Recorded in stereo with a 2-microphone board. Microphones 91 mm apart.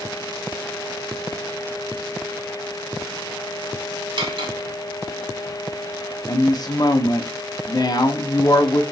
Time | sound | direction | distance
4.2 | cutlery clinking | 65° right (ahead or behind) | 1.0 m
6.3 | a woman speaking | 45° left (ahead or behind) | 0.6 m